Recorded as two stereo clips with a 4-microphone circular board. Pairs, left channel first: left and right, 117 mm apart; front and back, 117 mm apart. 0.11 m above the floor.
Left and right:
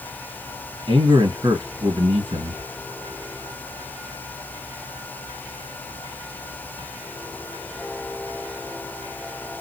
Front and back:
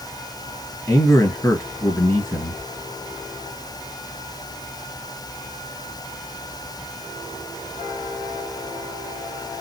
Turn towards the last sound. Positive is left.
turn(degrees=-65)